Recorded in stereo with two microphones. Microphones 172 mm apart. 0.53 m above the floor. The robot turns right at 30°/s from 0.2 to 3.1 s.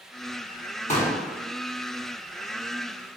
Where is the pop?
40° left (ahead or behind), 1.4 m.